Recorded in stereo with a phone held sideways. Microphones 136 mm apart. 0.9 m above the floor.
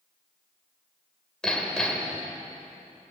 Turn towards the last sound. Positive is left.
turn(degrees=5)  # may be behind; listen again after turning